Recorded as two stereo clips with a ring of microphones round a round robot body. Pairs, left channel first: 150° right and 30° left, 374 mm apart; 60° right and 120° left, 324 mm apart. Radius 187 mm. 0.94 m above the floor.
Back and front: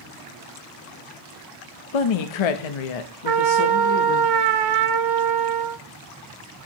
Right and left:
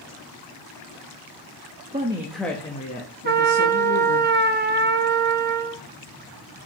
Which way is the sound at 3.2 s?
60° left.